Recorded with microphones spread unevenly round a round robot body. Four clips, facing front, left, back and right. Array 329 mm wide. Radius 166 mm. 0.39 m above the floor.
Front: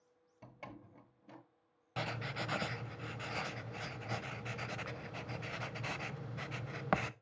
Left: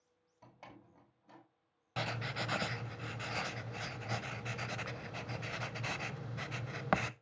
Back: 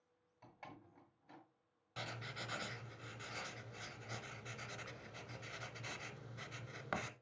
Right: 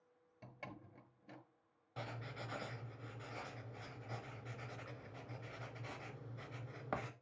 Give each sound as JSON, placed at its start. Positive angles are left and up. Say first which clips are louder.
{"t": 0.4, "sound": "a door slam", "louder": "right 2 dB, front 5 dB", "azimuth_deg": -25, "distance_m": 1.2}
{"t": 2.0, "sound": "writing", "louder": "left 9 dB, front 8 dB", "azimuth_deg": 65, "distance_m": 0.6}